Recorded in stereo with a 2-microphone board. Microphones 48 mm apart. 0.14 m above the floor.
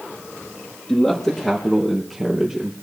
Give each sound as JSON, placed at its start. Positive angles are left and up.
{"t": 0.9, "sound": "a man speaking", "side_deg": 10, "distance_m": 4.0}